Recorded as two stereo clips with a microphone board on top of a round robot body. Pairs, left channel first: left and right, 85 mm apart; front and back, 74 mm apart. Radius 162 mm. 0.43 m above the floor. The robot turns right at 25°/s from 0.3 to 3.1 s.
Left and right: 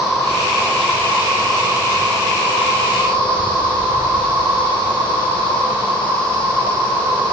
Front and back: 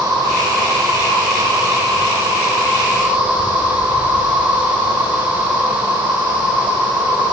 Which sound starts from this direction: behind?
An insect, at 0.0 s.